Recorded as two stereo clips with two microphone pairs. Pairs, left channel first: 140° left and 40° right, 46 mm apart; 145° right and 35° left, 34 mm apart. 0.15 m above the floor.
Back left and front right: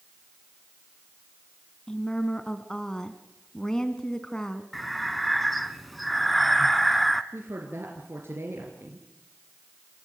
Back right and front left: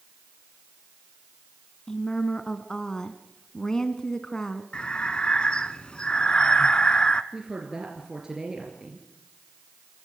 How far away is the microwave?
I don't hear a microwave.